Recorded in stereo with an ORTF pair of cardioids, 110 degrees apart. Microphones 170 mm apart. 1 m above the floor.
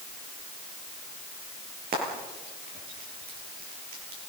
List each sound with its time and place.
1.9 s frying: 60° right, 9.5 m